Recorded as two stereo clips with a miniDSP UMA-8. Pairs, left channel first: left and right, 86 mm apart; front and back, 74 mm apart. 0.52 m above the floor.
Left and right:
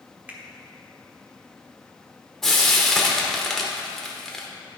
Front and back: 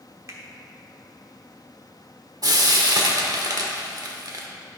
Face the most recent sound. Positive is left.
turn(degrees=175)